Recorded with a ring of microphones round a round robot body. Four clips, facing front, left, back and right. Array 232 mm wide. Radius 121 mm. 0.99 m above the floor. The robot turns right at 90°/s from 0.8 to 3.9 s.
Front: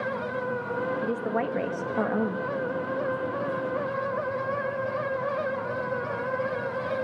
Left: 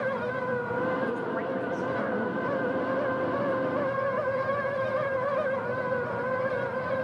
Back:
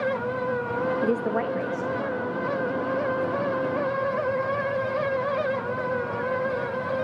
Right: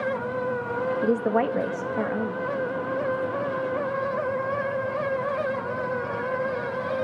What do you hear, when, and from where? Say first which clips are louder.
1.0 s a woman speaking: right 7 dB, back 3 dB; 120° right, 1.8 m; by 2.5 s 10° left, 1.8 m